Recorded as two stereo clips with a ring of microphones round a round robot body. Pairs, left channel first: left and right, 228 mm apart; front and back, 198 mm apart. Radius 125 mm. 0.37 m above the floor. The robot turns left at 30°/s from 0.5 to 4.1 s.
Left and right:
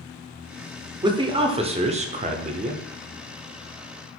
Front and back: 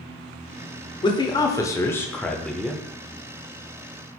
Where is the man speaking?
40° right, 0.8 m; by 2.8 s 95° right, 0.8 m.